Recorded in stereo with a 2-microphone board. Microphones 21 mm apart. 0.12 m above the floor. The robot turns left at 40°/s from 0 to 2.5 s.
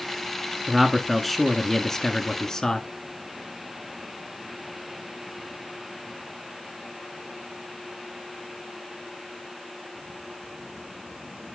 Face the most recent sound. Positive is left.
turn(degrees=25)  # may be behind; listen again after turning